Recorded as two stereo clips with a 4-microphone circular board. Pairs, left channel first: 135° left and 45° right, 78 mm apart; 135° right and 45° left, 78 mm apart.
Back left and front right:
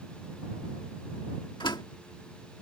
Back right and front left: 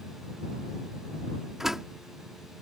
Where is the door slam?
130° left.